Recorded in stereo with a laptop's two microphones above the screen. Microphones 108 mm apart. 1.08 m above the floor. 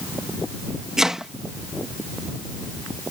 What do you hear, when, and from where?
1.0 s chopping: 5° right (ahead or behind)